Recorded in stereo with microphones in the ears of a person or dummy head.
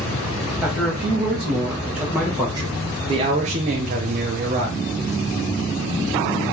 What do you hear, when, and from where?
0.6 s a man speaking: 5° right (ahead or behind), 1.8 m; by 4.8 s 40° right (ahead or behind), 0.8 m